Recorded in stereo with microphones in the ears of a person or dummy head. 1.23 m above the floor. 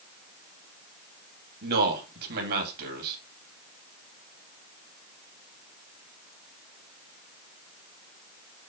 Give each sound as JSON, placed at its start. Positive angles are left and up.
{"t": 1.6, "sound": "a man speaking", "side_deg": -50, "distance_m": 2.5}